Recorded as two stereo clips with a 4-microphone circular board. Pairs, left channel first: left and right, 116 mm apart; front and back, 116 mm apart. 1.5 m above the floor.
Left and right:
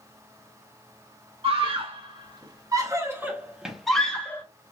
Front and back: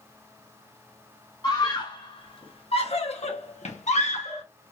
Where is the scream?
55° right, 1.8 m; by 4.4 s 15° left, 1.2 m.